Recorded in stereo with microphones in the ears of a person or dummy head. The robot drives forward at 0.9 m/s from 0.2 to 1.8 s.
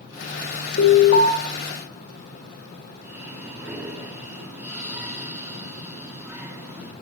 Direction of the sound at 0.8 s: 80° left.